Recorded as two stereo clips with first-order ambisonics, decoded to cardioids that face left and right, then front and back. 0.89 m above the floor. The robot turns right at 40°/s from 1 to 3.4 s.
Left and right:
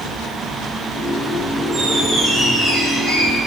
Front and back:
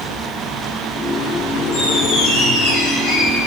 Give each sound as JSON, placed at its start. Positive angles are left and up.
{"t": 1.7, "sound": "a squeak", "azimuth_deg": -40, "distance_m": 5.5}